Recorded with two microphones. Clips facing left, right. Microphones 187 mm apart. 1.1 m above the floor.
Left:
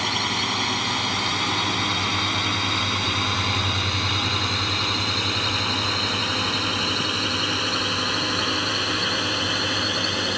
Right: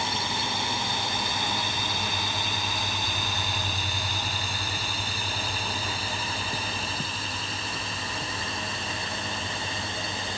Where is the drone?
85° left; by 10.4 s 70° left (ahead or behind).